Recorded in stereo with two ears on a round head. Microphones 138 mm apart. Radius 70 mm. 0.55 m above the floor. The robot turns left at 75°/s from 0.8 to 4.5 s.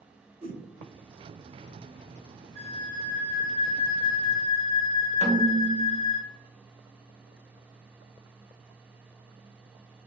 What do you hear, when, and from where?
0.4 s a whoosh: 40° right (ahead or behind), 0.7 m
2.5 s a flute: 140° left, 1.5 m; by 6.2 s 5° right, 1.5 m
5.2 s a snare drum: 45° right (ahead or behind), 0.9 m